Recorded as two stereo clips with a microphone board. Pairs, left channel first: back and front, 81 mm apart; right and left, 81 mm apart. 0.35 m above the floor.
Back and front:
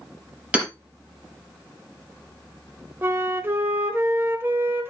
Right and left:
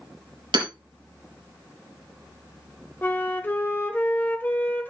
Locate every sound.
0.5 s hammering: 75° left, 4.5 m
3.0 s a flute: 40° right, 1.1 m